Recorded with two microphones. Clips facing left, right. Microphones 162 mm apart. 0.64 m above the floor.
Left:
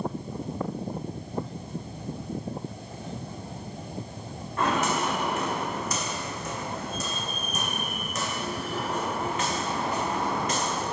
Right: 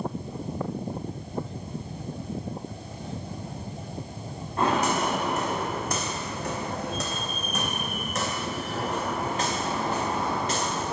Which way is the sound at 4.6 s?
30° right (ahead or behind).